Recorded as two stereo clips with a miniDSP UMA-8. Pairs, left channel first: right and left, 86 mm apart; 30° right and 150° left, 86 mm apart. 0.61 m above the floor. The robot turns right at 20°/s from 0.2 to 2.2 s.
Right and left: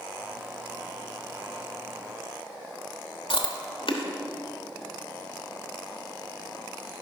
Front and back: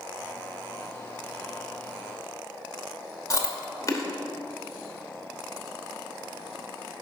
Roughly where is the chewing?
Right.